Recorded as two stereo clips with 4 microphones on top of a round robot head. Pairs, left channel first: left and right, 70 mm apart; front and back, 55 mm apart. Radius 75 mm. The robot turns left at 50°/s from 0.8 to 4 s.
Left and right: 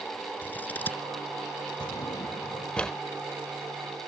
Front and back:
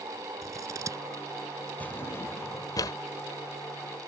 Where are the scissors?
160° left; by 1.0 s 145° left.